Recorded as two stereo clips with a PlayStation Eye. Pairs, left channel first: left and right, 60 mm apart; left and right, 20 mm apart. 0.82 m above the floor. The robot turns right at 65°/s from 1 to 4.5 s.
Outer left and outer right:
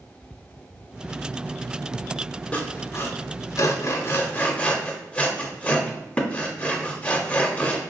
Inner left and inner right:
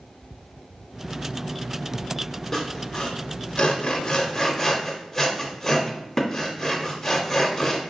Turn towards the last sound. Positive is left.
turn(degrees=20)  # may be behind; listen again after turning